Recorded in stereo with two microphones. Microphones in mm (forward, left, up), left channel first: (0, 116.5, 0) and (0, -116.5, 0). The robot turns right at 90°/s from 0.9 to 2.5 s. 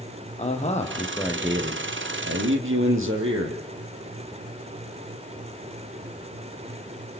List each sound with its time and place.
0.4 s a man speaking: 150° left, 3.5 m; by 3.6 s 65° right, 3.5 m